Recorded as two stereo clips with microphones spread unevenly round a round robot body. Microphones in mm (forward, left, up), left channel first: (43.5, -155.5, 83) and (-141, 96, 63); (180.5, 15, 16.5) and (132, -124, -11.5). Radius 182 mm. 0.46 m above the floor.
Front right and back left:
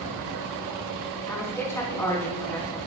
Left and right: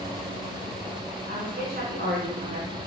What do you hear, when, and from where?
1.3 s a woman speaking: 135° right, 5 m